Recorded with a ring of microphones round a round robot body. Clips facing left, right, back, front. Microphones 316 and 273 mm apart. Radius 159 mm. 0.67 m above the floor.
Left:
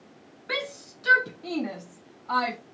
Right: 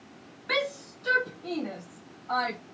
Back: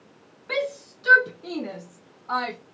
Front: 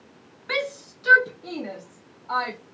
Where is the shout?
20° right, 0.6 m; by 2.6 s 125° left, 1.2 m.